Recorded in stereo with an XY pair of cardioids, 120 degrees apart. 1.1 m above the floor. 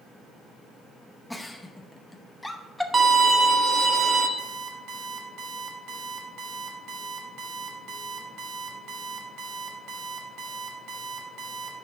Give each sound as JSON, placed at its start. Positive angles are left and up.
{"t": 1.3, "sound": "a giggle", "azimuth_deg": 5, "distance_m": 0.8}
{"t": 2.9, "sound": "a violin", "azimuth_deg": -20, "distance_m": 1.0}
{"t": 4.4, "sound": "an alarm clock", "azimuth_deg": -70, "distance_m": 2.0}